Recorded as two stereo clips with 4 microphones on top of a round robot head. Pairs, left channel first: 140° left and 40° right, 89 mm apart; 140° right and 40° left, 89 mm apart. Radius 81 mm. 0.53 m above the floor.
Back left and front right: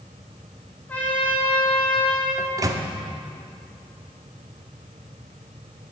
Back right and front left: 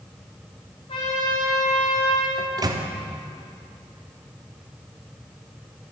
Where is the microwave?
5° left, 0.8 m.